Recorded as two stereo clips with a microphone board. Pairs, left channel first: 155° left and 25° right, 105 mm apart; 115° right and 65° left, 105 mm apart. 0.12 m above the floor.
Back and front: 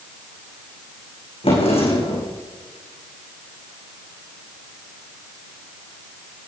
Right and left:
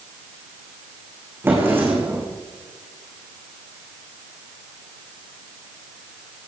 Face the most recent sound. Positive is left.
turn(degrees=135)